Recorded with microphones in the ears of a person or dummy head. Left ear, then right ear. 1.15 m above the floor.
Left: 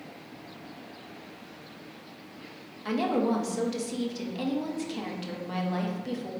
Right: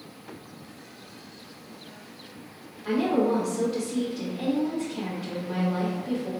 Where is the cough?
I don't hear a cough.